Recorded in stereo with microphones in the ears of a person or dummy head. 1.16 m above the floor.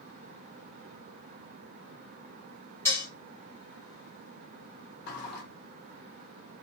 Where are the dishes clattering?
20° left (ahead or behind), 1.2 m.